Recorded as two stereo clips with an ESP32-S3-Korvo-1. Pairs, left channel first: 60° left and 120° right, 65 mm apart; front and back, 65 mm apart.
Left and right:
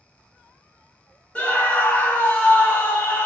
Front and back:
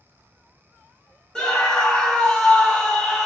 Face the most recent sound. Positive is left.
turn(degrees=55)